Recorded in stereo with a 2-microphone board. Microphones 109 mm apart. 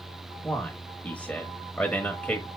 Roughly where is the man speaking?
Centre.